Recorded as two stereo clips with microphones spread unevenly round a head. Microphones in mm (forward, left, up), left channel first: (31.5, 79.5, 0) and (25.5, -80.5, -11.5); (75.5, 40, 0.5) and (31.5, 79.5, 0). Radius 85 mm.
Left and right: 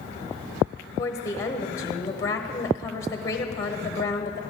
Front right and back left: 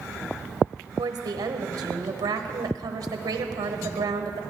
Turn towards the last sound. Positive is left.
turn(degrees=160)